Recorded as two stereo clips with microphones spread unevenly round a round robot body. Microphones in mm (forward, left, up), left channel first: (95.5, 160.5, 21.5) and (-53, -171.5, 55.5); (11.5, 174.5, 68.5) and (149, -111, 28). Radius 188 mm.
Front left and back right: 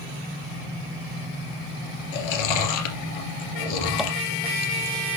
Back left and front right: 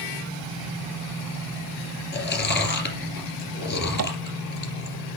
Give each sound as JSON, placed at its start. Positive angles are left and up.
{"t": 2.1, "sound": "chewing", "azimuth_deg": 60, "distance_m": 2.5}
{"t": 4.0, "sound": "tapping", "azimuth_deg": -25, "distance_m": 0.8}